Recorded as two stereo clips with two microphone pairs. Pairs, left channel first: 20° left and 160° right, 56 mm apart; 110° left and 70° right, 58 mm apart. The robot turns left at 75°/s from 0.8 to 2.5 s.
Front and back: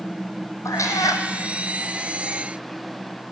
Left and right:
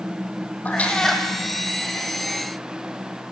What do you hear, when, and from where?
0.7 s a cat meowing: 45° left, 1.6 m; by 1.2 s 10° left, 1.6 m